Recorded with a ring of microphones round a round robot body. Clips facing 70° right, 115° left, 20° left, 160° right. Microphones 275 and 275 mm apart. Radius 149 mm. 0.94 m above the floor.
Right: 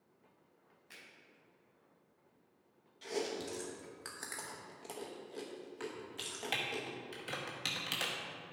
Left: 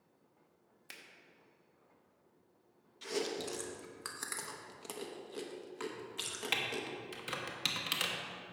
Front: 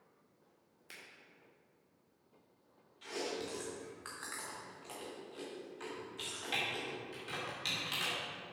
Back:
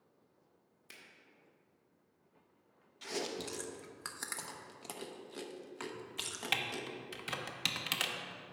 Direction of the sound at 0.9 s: 120° left.